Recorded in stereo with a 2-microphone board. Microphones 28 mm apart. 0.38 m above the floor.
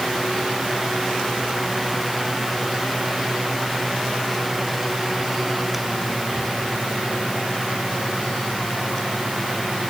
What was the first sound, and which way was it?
Only background noise.